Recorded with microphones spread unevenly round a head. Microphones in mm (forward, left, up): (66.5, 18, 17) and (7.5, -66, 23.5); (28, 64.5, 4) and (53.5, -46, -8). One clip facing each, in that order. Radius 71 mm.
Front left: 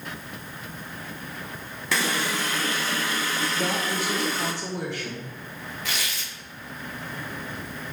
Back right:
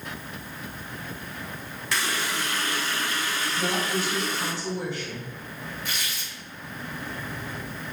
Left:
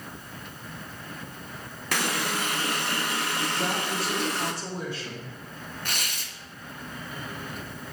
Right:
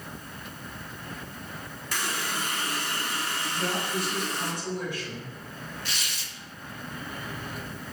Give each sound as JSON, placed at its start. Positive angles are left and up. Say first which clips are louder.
{"t": 1.9, "sound": "a running tap", "louder": "front left 3 dB, left 4 dB", "azimuth_deg": 80, "distance_m": 0.7}
{"t": 3.5, "sound": "a woman speaking", "louder": "back right 3 dB, right 2 dB", "azimuth_deg": 40, "distance_m": 2.5}
{"t": 5.8, "sound": "tearing paper", "louder": "front left 2 dB, left 2 dB", "azimuth_deg": 60, "distance_m": 0.8}